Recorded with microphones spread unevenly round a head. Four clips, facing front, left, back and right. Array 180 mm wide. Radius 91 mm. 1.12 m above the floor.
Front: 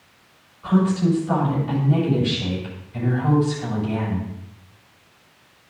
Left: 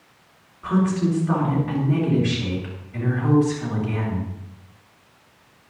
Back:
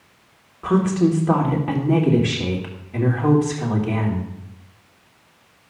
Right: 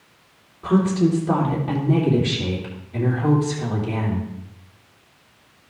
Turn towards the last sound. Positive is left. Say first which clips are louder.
# right 3 dB, back 2 dB
turn(degrees=-160)